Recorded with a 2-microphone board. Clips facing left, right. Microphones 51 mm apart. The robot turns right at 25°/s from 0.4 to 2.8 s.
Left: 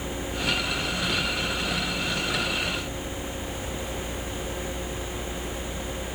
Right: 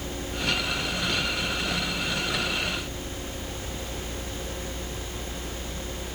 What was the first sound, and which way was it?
Only background noise.